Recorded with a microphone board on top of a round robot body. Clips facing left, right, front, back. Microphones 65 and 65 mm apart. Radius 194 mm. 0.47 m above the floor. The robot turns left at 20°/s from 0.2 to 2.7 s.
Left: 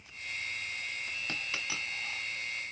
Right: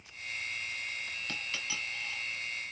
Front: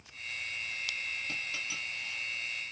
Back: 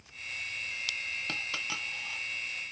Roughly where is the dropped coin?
Behind.